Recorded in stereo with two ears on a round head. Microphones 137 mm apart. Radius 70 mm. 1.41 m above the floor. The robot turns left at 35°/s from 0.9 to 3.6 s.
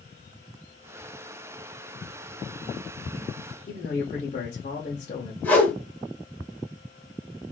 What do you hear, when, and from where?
3.7 s a man speaking: 45° left (ahead or behind), 0.8 m
5.4 s a whoosh: 15° left (ahead or behind), 1.5 m